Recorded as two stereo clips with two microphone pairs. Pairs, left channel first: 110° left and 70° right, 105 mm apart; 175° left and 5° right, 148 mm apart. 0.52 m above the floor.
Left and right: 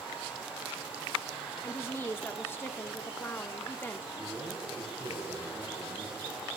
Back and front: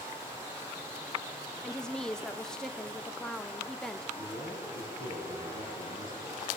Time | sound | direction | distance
1.6 | a woman speaking | 90° left | 0.6 m
4.2 | a man speaking | 10° left | 5.5 m